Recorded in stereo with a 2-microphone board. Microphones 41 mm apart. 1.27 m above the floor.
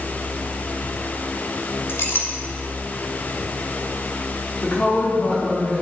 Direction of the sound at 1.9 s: 65° left (ahead or behind).